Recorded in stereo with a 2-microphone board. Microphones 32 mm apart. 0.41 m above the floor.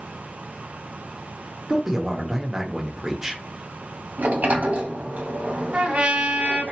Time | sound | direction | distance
1.7 | a man speaking | 15° right (ahead or behind) | 0.8 m
4.2 | a sliding door | 65° right (ahead or behind) | 1.1 m
5.7 | a trumpet | 45° right (ahead or behind) | 1.4 m